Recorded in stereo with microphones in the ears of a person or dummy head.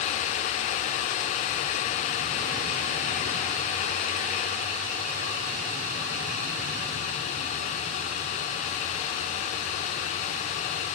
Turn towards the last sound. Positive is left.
No sound to turn to.